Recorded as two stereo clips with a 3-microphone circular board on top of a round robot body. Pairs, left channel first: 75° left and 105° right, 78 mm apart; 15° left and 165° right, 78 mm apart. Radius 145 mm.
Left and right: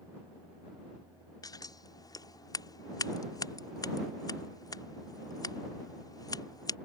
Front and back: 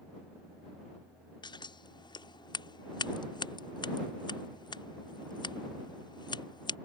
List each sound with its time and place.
1.4 s scissors: 35° left